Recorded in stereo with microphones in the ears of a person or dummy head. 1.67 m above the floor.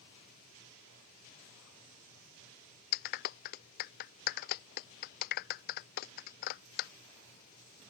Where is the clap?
50° left (ahead or behind).